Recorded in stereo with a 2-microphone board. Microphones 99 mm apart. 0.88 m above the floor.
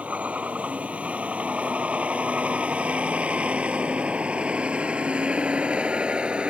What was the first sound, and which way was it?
A vehicle, 15° right (ahead or behind).